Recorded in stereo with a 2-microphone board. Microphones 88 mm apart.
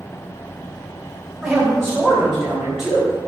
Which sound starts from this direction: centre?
A man speaking, at 1.4 s.